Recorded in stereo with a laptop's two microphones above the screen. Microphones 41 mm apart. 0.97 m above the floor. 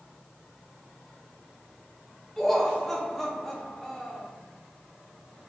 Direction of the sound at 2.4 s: 5° left (ahead or behind).